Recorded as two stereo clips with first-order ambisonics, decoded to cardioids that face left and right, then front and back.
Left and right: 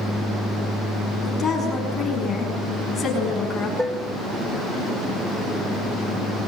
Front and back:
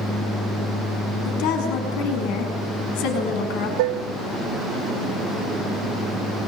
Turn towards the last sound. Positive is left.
turn(degrees=180)